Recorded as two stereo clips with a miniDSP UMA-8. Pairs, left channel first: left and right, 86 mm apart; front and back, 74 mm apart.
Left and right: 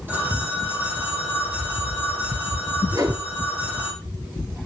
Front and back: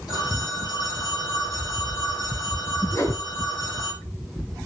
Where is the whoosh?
45° right, 3.5 m.